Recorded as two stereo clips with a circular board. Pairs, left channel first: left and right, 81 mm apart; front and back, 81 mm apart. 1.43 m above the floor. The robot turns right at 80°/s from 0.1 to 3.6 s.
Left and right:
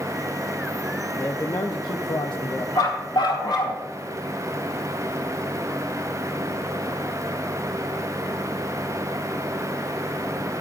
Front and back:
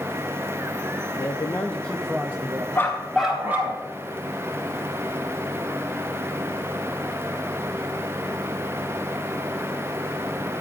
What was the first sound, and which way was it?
A man speaking, 20° left.